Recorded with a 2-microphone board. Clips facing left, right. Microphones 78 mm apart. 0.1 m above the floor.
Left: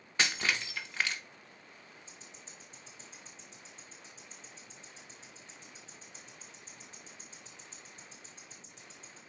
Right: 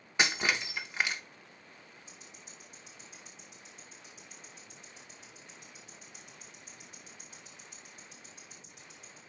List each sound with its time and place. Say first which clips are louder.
0.2 s breaking glass: right 2 dB; 15° right (ahead or behind), 1.0 m
2.1 s ticking: even; 30° left (ahead or behind), 4.5 m